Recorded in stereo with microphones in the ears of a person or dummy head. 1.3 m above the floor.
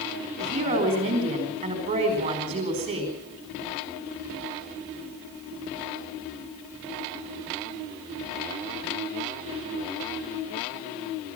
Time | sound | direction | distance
0.4 | a woman speaking | 30° right (ahead or behind) | 4.5 m